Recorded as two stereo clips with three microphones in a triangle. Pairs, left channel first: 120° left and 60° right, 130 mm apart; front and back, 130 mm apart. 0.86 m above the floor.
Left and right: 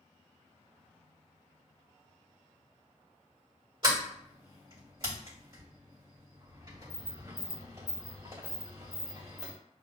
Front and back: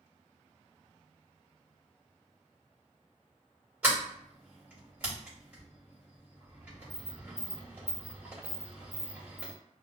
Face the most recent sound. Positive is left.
turn(degrees=-105)